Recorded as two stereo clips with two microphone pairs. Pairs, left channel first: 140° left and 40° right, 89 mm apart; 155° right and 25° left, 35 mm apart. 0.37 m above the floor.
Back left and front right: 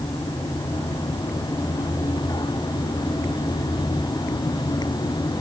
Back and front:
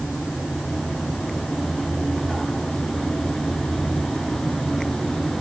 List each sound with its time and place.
Only background noise.